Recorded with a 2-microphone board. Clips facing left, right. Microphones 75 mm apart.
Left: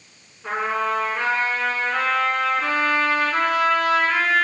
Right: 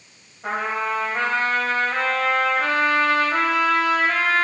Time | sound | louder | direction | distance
0.4 | a trumpet | left 1 dB | 75° right (ahead or behind) | 1.6 m